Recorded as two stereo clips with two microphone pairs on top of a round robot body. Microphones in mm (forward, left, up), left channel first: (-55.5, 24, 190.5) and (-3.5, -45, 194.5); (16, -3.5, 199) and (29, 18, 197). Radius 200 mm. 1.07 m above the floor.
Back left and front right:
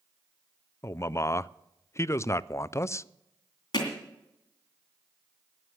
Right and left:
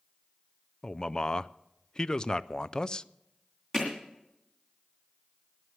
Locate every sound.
0.8 s a man speaking: 175° left, 0.5 m
3.7 s hammering: 170° left, 2.5 m